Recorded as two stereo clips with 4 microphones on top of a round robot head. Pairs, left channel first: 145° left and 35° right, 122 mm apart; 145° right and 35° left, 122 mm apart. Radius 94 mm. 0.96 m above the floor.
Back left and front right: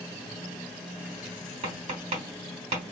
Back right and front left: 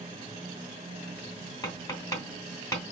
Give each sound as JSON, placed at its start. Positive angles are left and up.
{"t": 1.6, "sound": "tapping", "azimuth_deg": -75, "distance_m": 2.5}